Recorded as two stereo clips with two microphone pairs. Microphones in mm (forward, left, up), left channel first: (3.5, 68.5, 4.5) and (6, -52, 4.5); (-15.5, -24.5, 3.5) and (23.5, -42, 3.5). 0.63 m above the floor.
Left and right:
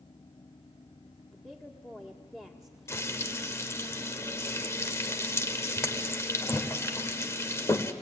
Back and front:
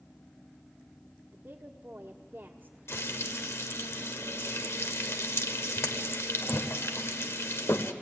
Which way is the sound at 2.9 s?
160° left.